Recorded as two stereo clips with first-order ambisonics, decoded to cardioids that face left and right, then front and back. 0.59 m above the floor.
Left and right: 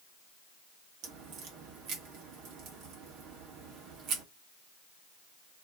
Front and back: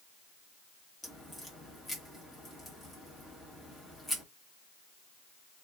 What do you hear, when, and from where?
1.0 s a crack: 80° right, 1.6 m